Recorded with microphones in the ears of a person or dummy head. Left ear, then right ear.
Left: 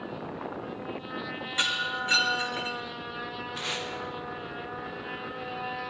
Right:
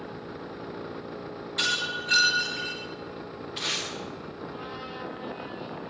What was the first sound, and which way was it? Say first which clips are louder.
Breaking glass: right 1 dB; 20° left (ahead or behind).